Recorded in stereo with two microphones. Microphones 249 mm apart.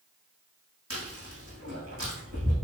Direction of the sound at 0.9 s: 65° right (ahead or behind).